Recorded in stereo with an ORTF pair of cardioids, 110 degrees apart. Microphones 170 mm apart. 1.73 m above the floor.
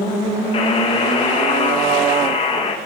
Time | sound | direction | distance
0.5 | a buzzer | 35° left | 3 m